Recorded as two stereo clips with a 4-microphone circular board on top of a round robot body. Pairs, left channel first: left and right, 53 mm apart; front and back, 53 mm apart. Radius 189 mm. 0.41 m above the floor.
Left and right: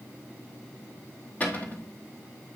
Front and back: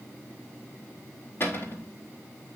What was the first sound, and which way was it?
A cupboard door, 35° left.